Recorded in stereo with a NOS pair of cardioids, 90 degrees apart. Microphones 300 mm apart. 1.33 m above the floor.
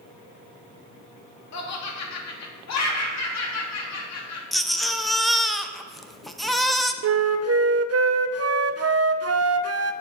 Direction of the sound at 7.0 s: 55° right.